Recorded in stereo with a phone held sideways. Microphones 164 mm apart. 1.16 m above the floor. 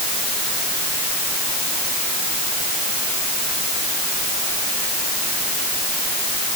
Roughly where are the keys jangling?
No keys jangling in this recording.